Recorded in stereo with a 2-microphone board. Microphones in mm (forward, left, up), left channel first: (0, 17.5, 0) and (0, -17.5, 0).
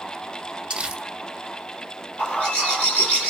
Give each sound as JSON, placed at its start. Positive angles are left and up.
{"t": 0.7, "sound": "crumpling", "side_deg": -25, "distance_m": 0.9}
{"t": 2.2, "sound": "a bird", "side_deg": 45, "distance_m": 2.0}